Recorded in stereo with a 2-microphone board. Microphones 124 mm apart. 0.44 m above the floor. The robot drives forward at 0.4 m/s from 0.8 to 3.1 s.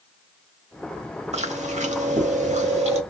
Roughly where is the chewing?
Right.